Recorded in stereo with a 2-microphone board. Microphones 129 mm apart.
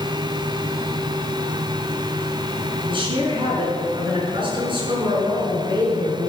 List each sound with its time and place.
2.9 s a woman speaking: 40° right (ahead or behind), 5 m